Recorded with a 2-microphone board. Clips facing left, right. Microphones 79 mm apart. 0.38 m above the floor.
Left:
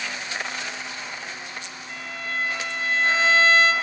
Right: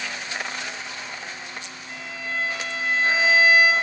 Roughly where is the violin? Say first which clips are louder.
Even; centre.